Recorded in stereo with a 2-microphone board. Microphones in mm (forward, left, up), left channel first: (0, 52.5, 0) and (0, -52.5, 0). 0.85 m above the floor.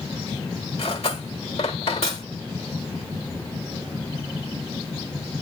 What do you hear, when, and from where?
0.8 s cutlery clinking: 75° left (ahead or behind), 1.5 m